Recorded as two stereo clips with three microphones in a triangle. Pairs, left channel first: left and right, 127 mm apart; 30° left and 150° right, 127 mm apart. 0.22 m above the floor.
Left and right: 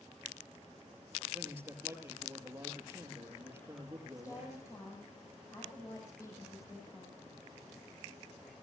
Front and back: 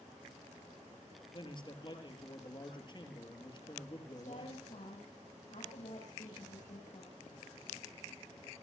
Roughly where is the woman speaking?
Ahead left.